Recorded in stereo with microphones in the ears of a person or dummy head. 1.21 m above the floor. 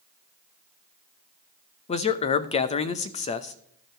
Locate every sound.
1.9 s a man speaking: 35° left (ahead or behind), 0.7 m